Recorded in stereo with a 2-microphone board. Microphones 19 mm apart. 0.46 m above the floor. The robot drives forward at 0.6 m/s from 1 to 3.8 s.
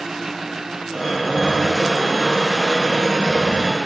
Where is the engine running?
20° right (ahead or behind).